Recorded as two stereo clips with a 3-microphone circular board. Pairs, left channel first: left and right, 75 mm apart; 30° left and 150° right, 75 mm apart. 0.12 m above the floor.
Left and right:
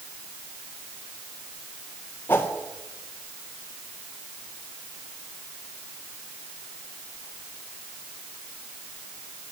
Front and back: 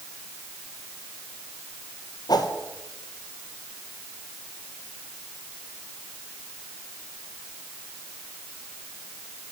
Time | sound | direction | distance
2.3 | a whoosh | 30° left | 1.9 m